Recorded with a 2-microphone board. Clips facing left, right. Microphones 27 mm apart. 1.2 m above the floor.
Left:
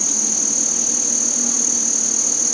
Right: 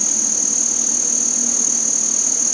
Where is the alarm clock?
I don't hear an alarm clock.